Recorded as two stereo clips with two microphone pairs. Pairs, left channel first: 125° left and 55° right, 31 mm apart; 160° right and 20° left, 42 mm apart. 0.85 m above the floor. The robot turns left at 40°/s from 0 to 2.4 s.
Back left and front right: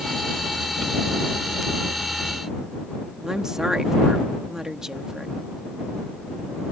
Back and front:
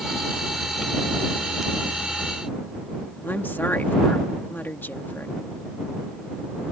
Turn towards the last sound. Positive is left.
turn(degrees=-130)